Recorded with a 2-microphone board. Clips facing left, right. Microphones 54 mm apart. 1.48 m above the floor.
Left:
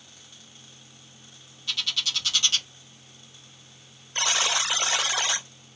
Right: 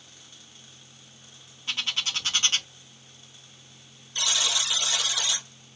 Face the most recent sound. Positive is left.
turn(degrees=40)  # may be behind; listen again after turning